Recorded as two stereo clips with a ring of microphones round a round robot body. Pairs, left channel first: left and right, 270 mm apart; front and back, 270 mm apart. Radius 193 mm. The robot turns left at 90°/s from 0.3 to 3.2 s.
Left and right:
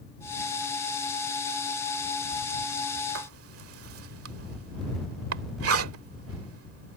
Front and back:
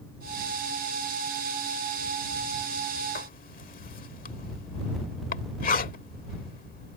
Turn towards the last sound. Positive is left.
turn(degrees=-60)